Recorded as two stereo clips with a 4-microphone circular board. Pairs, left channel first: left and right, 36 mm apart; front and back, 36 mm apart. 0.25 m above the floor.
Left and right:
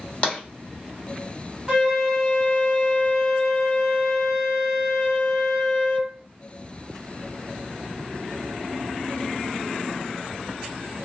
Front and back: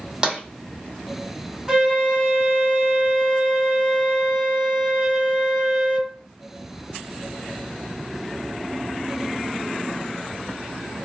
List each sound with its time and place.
0.2 s tapping: 115° left, 1.1 m
1.7 s a flute: 130° right, 1.6 m